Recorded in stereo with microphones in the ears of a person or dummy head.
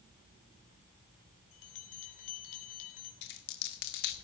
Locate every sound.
1.5 s a bell: 45° left (ahead or behind), 3 m
3.2 s a dropped coin: 45° left (ahead or behind), 1.3 m